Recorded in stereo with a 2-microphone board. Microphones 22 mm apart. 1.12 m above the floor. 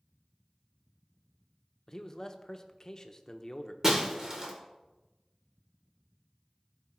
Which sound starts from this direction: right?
Breaking glass, at 3.8 s.